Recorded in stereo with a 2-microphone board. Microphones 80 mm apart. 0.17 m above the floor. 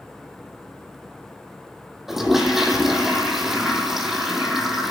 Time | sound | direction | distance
2.1 | a toilet flushing | 5° right (ahead or behind) | 1.0 m